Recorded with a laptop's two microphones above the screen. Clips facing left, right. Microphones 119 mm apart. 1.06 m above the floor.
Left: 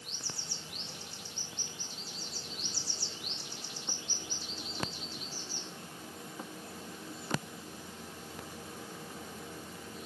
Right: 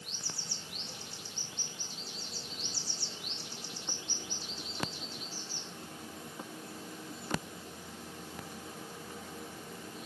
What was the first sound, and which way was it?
Only background noise.